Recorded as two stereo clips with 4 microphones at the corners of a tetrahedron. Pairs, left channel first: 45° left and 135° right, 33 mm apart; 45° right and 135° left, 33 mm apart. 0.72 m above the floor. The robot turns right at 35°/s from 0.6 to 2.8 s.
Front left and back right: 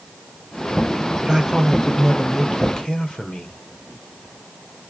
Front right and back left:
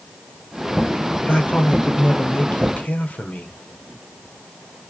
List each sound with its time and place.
1.2 s a man speaking: 70° right, 1.0 m; by 3.6 s 15° right, 1.0 m